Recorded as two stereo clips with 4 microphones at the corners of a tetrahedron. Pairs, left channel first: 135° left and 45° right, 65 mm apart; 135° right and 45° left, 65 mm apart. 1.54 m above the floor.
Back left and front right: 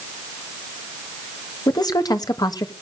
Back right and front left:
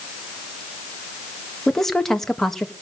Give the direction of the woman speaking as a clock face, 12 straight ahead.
7 o'clock.